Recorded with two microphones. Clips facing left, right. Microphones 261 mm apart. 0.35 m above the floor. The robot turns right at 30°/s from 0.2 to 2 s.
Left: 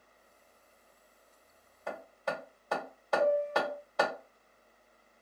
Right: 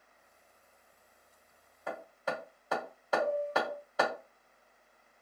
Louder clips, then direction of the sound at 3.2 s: Left 4 dB; 20° left (ahead or behind).